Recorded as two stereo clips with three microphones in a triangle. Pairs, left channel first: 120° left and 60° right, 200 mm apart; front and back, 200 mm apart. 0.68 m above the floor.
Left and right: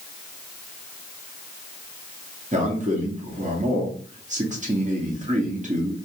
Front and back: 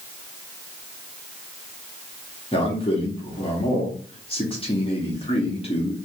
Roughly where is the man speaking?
Ahead right.